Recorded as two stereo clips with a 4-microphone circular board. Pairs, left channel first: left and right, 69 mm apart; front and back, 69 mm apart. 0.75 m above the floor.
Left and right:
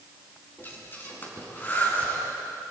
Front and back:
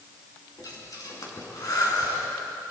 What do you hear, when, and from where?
0.6 s breathing: 30° left, 4.5 m